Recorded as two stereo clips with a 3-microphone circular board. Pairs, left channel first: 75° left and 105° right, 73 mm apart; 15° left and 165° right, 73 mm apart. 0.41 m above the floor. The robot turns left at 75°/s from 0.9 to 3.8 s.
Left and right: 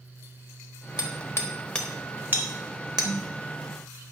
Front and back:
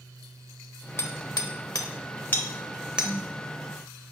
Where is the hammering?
55° left, 1.0 m; by 3.1 s 100° right, 1.0 m.